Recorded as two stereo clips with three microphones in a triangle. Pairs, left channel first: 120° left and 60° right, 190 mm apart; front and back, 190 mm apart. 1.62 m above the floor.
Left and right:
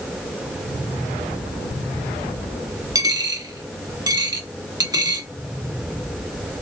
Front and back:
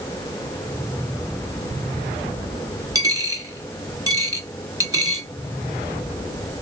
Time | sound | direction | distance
3.0 | a dropped coin | 120° right | 1.3 m